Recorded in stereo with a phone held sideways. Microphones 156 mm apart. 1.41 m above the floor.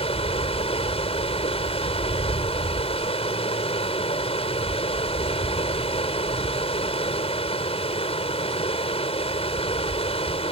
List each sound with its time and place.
0.0 s running water: 40° left (ahead or behind)